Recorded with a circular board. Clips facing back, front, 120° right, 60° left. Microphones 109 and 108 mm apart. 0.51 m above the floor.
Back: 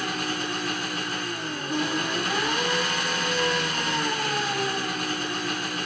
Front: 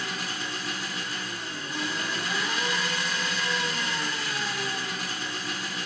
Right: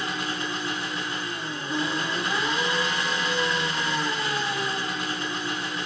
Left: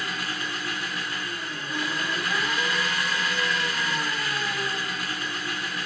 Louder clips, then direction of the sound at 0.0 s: Back 5 dB, right 2 dB; straight behind.